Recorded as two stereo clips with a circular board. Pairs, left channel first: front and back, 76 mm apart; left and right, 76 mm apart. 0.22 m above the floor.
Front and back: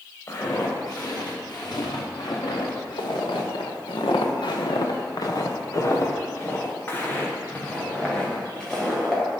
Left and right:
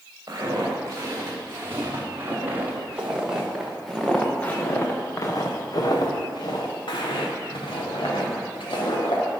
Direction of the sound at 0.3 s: 40° right.